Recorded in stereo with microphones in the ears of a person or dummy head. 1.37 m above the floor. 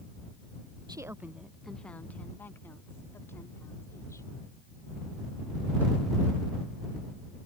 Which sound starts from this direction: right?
A woman speaking, at 0.9 s.